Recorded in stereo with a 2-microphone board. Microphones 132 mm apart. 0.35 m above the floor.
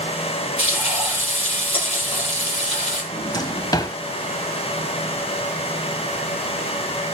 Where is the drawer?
30° left (ahead or behind), 0.7 m.